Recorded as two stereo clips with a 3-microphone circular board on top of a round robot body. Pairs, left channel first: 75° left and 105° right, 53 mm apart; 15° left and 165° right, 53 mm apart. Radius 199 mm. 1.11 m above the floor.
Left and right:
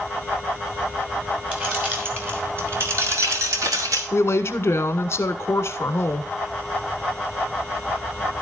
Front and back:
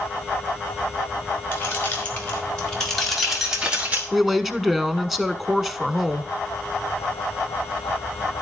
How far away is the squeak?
I don't hear a squeak.